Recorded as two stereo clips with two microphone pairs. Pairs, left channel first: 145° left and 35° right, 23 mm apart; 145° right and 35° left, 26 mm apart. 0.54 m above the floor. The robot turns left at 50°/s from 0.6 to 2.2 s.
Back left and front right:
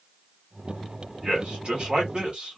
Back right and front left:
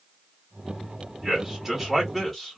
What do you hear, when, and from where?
1.2 s a man speaking: 20° right, 1.8 m; by 2.6 s 70° right, 1.8 m